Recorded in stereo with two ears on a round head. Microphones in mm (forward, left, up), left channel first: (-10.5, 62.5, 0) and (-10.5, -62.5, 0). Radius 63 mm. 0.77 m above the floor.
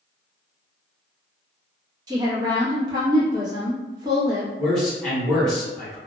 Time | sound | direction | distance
2.1 | a woman speaking | 30° right (ahead or behind) | 0.9 m
4.6 | a man speaking | 5° left (ahead or behind) | 1.3 m